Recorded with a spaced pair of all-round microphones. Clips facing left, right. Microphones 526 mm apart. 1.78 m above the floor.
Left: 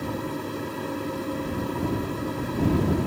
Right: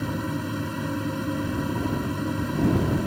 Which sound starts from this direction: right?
A fan, at 0.0 s.